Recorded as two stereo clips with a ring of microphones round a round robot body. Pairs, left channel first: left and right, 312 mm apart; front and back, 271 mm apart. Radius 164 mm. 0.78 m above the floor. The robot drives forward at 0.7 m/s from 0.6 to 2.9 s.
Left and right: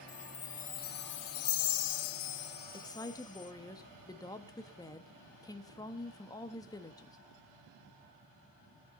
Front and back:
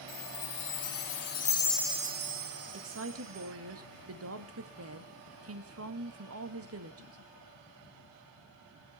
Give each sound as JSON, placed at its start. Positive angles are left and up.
{"t": 0.1, "sound": "a chime", "azimuth_deg": 25, "distance_m": 0.9}
{"t": 2.7, "sound": "a woman speaking", "azimuth_deg": 165, "distance_m": 1.4}